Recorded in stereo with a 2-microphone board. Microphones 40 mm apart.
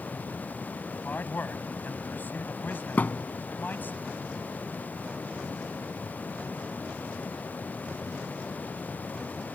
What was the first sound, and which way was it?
A man speaking, 55° left (ahead or behind).